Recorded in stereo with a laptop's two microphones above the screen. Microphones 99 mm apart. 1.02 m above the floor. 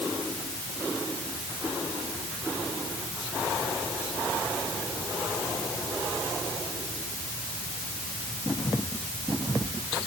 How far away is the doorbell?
No doorbell in this recording.